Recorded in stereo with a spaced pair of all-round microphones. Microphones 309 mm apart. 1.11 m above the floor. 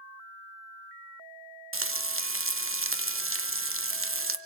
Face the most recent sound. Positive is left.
turn(degrees=-45)  # may be behind; listen again after turning